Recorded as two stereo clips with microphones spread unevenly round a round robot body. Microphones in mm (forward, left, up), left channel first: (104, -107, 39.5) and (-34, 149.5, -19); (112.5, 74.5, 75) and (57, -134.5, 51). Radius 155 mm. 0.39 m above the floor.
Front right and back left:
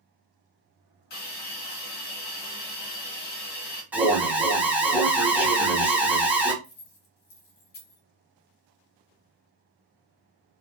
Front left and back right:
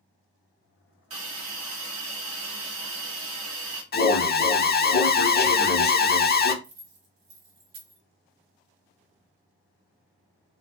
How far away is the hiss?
About 1.1 m.